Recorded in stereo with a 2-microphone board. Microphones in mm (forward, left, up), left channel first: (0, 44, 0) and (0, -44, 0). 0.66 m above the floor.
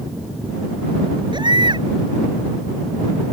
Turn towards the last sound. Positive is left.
turn(degrees=-60)  # may be behind; listen again after turning